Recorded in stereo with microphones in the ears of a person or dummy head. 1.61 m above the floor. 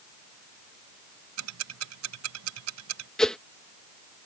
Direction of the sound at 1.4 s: 85° right.